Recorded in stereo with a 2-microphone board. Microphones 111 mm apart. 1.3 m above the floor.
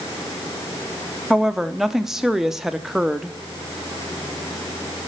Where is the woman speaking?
5° right (ahead or behind), 0.6 m.